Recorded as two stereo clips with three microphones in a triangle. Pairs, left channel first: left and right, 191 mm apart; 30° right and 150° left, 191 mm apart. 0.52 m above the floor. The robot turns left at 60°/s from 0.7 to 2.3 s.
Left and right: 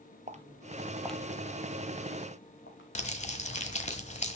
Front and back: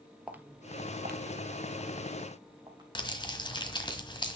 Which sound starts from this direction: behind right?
Footsteps, at 0.3 s.